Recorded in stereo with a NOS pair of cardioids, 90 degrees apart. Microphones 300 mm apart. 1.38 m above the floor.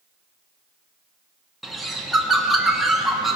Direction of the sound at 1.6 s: Straight ahead.